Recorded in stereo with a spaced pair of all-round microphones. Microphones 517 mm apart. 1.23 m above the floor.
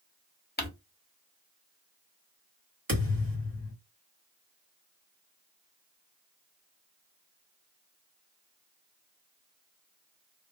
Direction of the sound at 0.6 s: 20° left (ahead or behind).